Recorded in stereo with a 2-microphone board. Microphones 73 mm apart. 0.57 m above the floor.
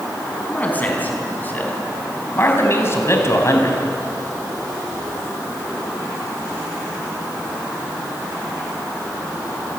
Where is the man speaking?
20° left (ahead or behind), 6.5 m; by 3.8 s 45° left (ahead or behind), 4.5 m.